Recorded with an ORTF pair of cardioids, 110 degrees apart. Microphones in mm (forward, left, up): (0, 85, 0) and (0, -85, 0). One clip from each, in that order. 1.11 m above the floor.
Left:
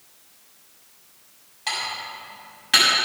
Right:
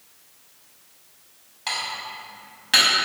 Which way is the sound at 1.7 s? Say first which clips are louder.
Left 1 dB; 5° right.